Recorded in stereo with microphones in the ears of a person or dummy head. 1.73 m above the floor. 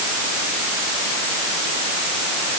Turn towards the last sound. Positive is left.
No sound to turn to.